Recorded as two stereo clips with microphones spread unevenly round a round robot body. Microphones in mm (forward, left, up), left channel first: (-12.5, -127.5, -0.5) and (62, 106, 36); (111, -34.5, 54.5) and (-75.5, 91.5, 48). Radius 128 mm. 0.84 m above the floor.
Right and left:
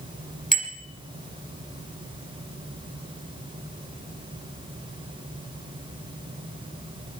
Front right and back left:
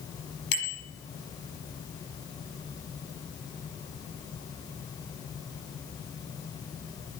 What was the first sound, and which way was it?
A bicycle bell, 15° right.